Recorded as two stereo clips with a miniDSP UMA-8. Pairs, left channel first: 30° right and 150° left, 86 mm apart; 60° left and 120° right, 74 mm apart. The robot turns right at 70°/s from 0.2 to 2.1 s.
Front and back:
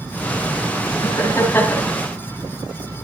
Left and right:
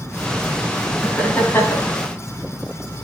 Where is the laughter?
15° right, 2 m; by 2.0 s 50° left, 2 m.